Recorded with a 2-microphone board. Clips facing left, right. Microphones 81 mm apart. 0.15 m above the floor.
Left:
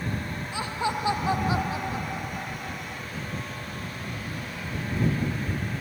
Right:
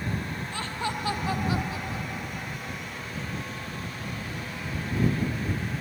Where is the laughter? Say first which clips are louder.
Left 4 dB; 15° left (ahead or behind); by 3.0 s 35° left (ahead or behind).